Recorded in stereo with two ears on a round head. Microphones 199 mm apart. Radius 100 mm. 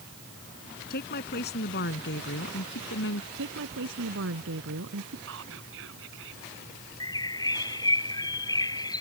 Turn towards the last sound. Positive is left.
turn(degrees=20)  # may be behind; listen again after turning